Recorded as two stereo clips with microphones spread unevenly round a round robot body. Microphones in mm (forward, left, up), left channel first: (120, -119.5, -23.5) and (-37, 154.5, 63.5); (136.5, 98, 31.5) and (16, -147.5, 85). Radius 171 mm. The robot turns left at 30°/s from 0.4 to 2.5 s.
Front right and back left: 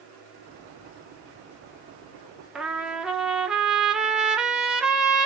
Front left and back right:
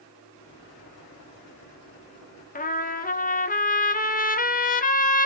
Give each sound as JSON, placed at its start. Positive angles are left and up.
{"t": 2.5, "sound": "a trumpet", "azimuth_deg": 20, "distance_m": 1.5}